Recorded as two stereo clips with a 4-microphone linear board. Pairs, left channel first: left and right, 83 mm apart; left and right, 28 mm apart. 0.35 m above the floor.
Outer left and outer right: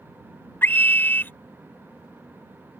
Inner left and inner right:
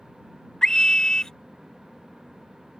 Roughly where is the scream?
Left.